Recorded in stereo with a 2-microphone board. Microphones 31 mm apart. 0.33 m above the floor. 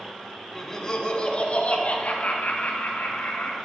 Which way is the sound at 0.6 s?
10° left (ahead or behind).